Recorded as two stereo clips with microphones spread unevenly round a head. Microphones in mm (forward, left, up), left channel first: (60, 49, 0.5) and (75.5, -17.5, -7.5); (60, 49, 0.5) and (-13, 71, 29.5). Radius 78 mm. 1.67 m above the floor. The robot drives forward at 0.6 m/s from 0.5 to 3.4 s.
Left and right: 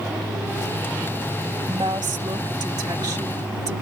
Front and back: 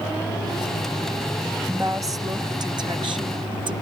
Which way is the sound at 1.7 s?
130° right.